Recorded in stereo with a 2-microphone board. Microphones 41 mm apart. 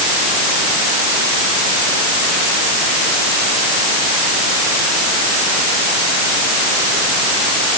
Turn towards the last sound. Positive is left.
No sound to turn to.